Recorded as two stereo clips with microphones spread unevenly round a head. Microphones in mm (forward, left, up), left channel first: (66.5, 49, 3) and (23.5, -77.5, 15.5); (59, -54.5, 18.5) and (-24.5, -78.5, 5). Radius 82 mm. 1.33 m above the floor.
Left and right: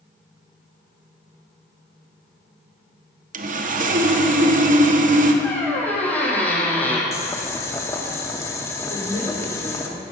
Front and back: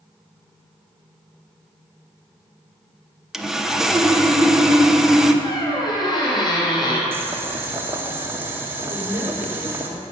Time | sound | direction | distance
3.3 | sawing | 80° right | 1.1 m
5.4 | a squeak | 10° right | 3 m
7.1 | boiling | 135° left | 0.8 m
8.9 | a woman speaking | 100° right | 4 m